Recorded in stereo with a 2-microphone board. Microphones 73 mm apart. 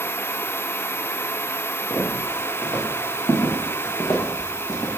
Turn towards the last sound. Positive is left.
turn(degrees=55)  # may be behind; listen again after turning